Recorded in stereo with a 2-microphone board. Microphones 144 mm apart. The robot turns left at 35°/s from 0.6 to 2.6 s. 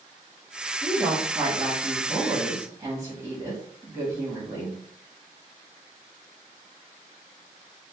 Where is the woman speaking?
15° right (ahead or behind), 1.0 m; by 4.8 s 20° right (ahead or behind), 1.0 m.